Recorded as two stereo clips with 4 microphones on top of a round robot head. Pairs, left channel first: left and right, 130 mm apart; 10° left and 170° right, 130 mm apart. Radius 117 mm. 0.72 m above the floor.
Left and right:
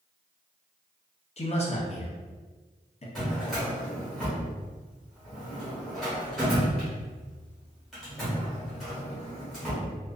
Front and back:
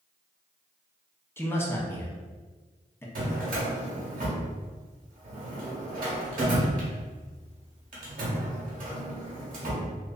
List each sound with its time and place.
1.4 s a man speaking: 75° left, 0.8 m
3.1 s a drawer: straight behind, 0.9 m